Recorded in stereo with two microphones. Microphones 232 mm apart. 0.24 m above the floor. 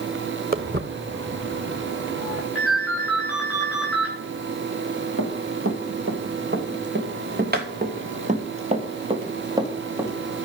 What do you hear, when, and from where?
0.5 s footsteps: 40° right (ahead or behind), 1.4 m; by 2.5 s 65° right (ahead or behind), 2.5 m
2.5 s a ringtone: centre (ahead or behind), 9.5 m
5.2 s running footsteps: 70° right (ahead or behind), 3.5 m; by 10.1 s 10° right (ahead or behind), 3.5 m